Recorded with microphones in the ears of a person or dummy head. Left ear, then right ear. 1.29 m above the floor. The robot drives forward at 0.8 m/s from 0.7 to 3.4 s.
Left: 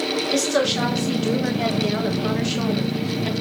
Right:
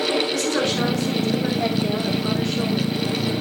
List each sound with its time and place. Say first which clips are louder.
0.3 s a woman speaking: left 1 dB; 15° left (ahead or behind), 4 m; by 3.3 s 30° left (ahead or behind), 2 m